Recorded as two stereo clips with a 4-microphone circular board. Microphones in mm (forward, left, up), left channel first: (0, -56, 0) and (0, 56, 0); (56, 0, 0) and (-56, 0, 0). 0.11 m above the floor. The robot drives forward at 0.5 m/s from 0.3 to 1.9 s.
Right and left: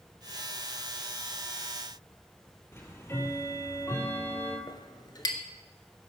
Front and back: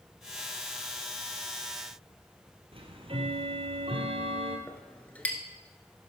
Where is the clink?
70° right, 1.2 m.